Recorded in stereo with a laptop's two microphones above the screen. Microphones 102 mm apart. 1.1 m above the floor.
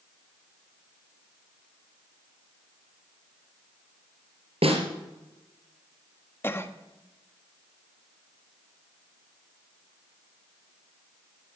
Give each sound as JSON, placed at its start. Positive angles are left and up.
{"t": 4.6, "sound": "a snare drum", "side_deg": -70, "distance_m": 3.0}
{"t": 6.4, "sound": "a cough", "side_deg": 20, "distance_m": 1.3}